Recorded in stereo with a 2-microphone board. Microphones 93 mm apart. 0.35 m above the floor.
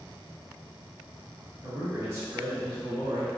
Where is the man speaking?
30° right (ahead or behind), 1.4 m; by 3.3 s 40° right (ahead or behind), 1.4 m.